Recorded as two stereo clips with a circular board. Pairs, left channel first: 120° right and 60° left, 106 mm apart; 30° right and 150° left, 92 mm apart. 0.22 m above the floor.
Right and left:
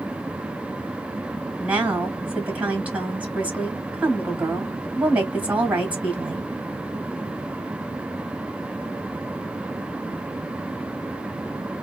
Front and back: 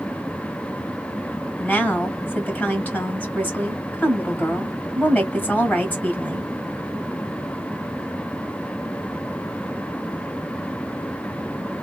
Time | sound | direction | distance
1.6 | a woman speaking | 10° left | 1.3 m